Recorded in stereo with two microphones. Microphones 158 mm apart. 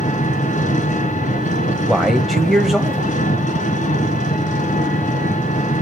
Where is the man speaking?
Centre (ahead or behind), 1.0 m.